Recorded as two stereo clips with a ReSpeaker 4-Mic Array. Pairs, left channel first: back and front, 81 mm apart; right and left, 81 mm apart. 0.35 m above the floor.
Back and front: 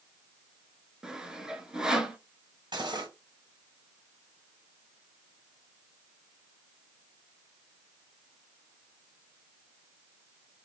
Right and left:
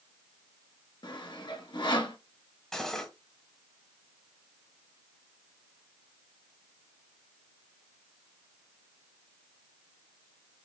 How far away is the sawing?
About 0.8 m.